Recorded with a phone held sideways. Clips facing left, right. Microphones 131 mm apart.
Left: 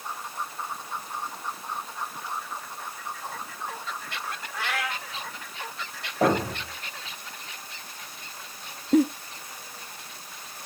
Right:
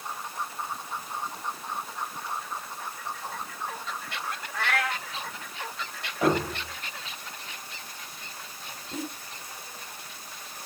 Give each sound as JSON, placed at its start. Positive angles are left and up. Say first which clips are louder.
{"t": 4.5, "sound": "a cat meowing", "louder": "right 3 dB", "side_deg": 10, "distance_m": 3.5}
{"t": 6.2, "sound": "a thud", "louder": "left 2 dB", "side_deg": 45, "distance_m": 4.5}
{"t": 8.9, "sound": "a giggle", "louder": "left 17 dB", "side_deg": 60, "distance_m": 0.7}